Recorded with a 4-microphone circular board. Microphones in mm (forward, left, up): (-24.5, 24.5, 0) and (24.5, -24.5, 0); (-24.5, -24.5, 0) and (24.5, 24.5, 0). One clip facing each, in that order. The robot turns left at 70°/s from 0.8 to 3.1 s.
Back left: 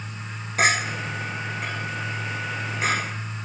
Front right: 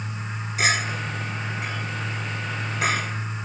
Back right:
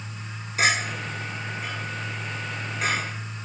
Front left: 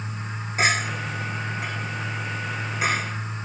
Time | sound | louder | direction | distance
0.6 | a clink | back left 2 dB, front left 1 dB | 105° left | 3.5 m